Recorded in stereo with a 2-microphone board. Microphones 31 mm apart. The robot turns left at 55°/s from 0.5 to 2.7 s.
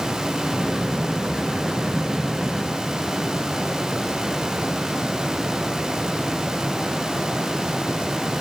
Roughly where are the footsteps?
No footsteps in this recording.